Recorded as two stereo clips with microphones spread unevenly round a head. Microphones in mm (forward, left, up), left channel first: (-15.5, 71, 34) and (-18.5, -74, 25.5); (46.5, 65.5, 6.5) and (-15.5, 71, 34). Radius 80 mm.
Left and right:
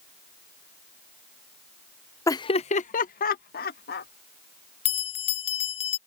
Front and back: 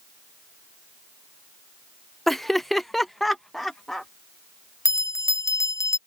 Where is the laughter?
30° left; by 4.1 s 80° left.